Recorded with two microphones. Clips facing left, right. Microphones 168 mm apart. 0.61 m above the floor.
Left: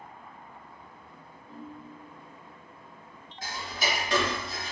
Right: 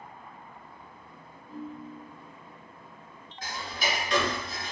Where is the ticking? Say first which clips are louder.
Even; 30° left (ahead or behind), 1.7 m.